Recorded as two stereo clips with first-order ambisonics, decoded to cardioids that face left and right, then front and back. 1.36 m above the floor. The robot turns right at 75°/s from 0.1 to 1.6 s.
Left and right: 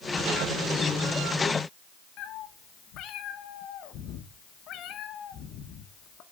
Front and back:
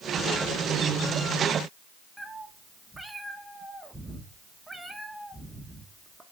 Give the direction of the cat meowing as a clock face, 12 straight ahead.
9 o'clock.